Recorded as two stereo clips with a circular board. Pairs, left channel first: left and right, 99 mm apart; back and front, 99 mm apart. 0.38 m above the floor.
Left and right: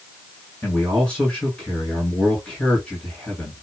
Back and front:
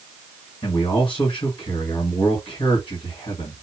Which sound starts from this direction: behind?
A man speaking, at 0.6 s.